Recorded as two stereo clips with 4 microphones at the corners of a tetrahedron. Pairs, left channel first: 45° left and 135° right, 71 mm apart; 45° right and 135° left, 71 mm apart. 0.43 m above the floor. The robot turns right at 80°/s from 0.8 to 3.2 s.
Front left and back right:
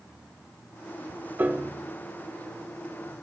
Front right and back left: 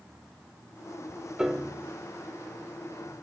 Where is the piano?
155° right, 0.7 m; by 1.9 s 115° right, 0.7 m.